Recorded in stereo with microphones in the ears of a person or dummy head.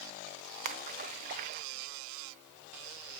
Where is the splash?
35° right (ahead or behind), 0.6 m.